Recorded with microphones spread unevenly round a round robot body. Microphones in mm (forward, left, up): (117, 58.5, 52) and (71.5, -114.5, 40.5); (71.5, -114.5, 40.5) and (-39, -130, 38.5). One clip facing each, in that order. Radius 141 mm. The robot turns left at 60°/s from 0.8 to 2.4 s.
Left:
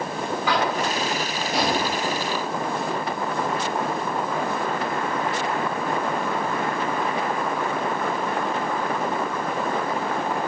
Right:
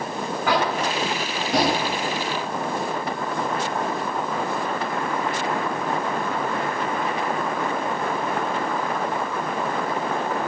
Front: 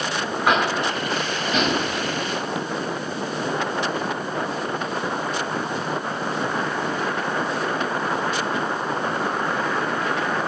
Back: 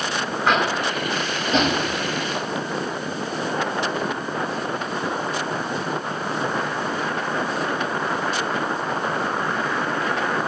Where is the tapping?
75° right, 3 m; by 1.8 s 135° right, 3 m.